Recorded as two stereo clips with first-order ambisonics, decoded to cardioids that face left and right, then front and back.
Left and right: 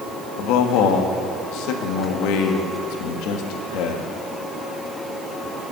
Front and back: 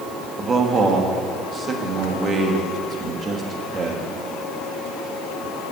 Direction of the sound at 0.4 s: 110° left.